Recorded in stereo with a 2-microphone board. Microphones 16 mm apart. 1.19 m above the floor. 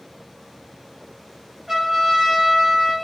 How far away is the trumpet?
About 1.8 m.